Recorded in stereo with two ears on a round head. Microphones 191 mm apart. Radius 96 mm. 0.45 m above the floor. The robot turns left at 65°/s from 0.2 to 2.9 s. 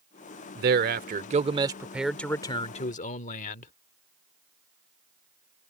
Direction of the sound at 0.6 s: 80° right.